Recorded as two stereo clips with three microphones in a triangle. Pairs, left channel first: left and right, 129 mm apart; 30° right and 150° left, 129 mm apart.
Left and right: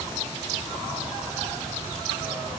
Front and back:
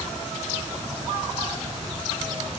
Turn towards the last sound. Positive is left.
No sound to turn to.